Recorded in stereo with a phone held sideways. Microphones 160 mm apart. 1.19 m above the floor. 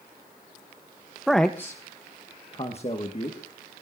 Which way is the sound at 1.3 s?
Centre (ahead or behind).